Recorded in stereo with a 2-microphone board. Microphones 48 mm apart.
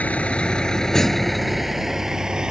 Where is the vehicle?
35° left (ahead or behind); by 2.5 s 15° right (ahead or behind).